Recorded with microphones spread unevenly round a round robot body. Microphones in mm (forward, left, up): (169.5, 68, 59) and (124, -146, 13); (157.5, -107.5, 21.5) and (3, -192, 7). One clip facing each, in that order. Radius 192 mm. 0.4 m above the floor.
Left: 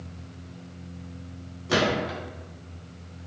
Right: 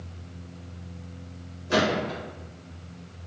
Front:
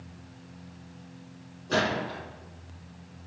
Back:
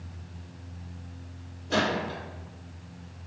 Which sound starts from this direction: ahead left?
A gunshot, at 1.7 s.